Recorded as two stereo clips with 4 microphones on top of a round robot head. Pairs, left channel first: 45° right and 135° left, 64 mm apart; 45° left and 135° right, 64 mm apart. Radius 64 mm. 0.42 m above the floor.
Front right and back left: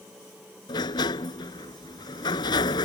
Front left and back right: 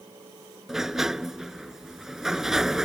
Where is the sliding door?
50° right.